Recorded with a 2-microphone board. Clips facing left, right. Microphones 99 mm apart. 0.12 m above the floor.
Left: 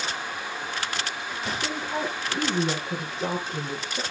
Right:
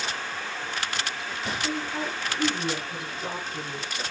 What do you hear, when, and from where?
1.6 s a woman speaking: 65° left (ahead or behind), 4.5 m